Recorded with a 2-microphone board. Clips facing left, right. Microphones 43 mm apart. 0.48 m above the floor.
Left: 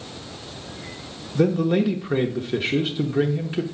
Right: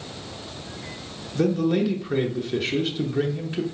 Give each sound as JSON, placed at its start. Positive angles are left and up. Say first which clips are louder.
{"t": 1.4, "sound": "a man speaking", "louder": "left 2 dB", "side_deg": 15, "distance_m": 0.8}